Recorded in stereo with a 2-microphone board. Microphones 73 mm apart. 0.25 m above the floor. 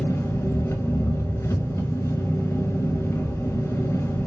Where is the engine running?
40° left (ahead or behind), 0.8 m.